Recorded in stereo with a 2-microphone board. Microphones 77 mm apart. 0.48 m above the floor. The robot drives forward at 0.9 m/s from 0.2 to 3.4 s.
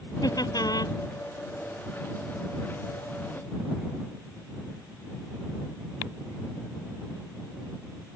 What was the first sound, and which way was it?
Laughter, 60° left (ahead or behind).